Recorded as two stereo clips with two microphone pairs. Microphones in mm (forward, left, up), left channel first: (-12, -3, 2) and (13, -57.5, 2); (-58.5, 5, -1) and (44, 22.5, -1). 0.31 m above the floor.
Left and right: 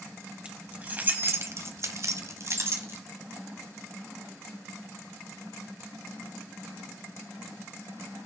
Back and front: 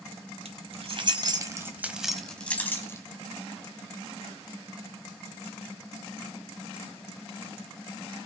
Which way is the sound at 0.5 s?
5° left.